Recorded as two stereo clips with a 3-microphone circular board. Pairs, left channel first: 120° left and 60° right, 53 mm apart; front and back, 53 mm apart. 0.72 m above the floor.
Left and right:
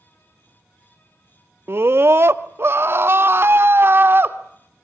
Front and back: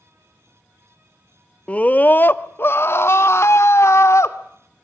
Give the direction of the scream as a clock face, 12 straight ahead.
2 o'clock.